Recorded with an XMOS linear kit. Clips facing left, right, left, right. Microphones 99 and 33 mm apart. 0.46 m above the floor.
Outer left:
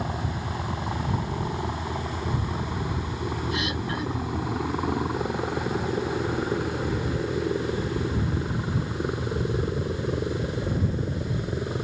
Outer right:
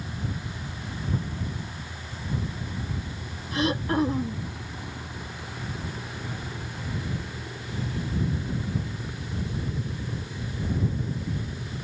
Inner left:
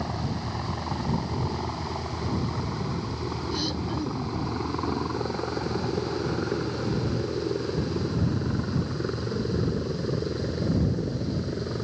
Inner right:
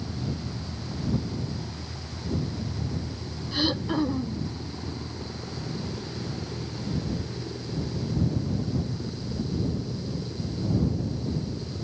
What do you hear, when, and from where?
0.0 s a helicopter: 65° left (ahead or behind); by 11.8 s 55° left (ahead or behind)
3.5 s throat clearing: 35° right (ahead or behind)